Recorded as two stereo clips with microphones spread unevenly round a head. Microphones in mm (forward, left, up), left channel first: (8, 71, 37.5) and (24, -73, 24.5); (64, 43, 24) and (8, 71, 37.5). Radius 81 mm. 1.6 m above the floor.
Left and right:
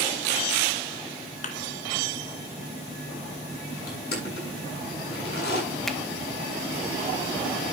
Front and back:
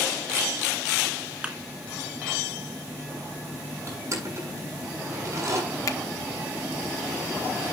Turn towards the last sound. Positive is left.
turn(degrees=10)